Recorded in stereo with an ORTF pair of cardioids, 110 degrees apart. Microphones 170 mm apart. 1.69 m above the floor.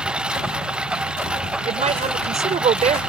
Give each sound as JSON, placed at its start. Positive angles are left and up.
{"t": 0.0, "sound": "a lawn mower", "azimuth_deg": -5}
{"t": 1.6, "sound": "a woman speaking", "azimuth_deg": -40}